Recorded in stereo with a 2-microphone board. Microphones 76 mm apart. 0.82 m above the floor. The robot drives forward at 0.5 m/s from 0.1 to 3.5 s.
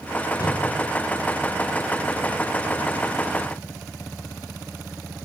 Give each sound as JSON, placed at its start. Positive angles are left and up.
{"t": 0.4, "sound": "a whoosh", "side_deg": 65, "distance_m": 2.5}